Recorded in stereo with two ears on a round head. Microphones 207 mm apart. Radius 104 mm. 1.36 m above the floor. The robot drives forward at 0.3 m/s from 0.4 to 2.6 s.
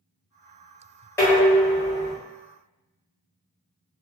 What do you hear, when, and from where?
1.2 s dishes clattering: 10° left (ahead or behind), 1.0 m